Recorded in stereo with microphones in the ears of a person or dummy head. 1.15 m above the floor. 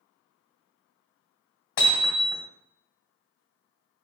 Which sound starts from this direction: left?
Hammering, at 1.8 s.